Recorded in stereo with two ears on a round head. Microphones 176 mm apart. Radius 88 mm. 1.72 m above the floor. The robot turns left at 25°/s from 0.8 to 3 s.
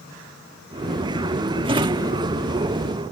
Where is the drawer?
25° right (ahead or behind); by 2.1 s 20° right (ahead or behind).